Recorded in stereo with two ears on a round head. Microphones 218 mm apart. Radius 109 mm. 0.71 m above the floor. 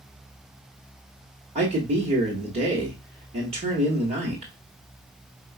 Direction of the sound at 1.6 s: 25° right (ahead or behind).